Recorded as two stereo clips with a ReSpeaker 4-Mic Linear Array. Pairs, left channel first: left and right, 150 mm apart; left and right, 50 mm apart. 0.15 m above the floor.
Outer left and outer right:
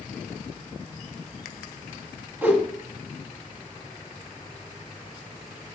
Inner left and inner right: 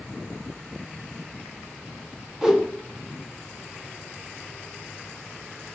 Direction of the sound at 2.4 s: 10° right (ahead or behind).